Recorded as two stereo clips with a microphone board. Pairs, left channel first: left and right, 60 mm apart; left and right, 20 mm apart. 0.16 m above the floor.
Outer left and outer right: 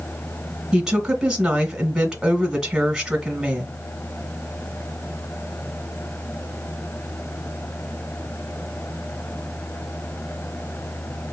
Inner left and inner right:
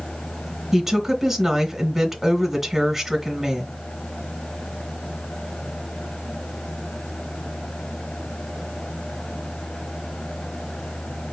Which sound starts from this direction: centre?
A woman speaking, at 0.7 s.